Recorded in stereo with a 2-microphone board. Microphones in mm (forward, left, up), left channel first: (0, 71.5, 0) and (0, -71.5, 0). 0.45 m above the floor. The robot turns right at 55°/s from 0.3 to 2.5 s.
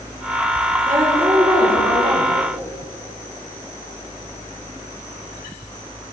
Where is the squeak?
No squeak in this recording.